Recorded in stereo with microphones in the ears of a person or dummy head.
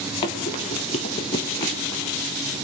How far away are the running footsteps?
About 1.2 m.